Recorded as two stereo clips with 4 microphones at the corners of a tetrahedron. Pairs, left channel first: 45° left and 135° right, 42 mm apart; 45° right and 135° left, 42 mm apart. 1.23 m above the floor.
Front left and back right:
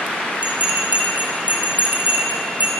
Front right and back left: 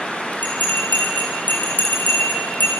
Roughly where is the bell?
Right.